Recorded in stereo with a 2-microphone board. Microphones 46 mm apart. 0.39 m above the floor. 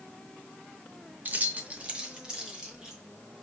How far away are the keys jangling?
About 0.6 m.